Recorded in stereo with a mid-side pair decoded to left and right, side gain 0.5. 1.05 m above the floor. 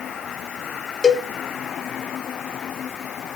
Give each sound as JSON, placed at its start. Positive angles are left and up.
{"t": 1.0, "sound": "a cowbell", "azimuth_deg": 40, "distance_m": 1.8}